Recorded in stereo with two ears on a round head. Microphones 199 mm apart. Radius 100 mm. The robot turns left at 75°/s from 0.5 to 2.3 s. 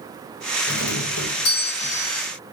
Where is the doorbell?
130° left, 3.5 m; by 2.2 s 15° left, 3.5 m.